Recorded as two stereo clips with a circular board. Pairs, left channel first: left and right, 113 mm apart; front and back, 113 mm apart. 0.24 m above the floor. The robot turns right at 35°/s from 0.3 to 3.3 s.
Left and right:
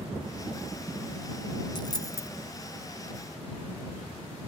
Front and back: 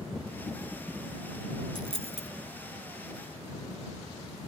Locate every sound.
1.8 s a dropped coin: 140° left; by 2.3 s 155° left